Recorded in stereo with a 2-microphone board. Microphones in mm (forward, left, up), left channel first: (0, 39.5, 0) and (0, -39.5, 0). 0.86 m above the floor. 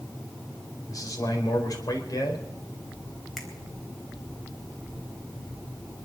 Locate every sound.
0.9 s a man speaking: 50° left (ahead or behind), 4.5 m
3.4 s a finger snap: centre (ahead or behind), 3.5 m